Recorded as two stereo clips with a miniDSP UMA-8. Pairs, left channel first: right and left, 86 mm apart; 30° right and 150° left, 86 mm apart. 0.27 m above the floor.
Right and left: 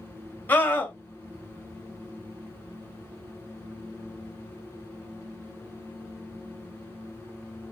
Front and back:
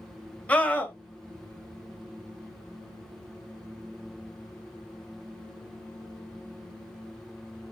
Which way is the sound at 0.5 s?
75° right.